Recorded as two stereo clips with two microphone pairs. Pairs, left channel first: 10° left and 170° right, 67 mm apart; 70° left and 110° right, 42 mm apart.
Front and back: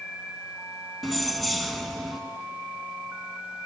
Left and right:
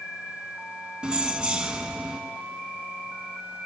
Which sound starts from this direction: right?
Keys jangling, at 1.0 s.